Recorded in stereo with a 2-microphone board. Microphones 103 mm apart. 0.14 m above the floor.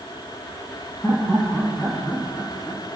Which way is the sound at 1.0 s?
5° left (ahead or behind).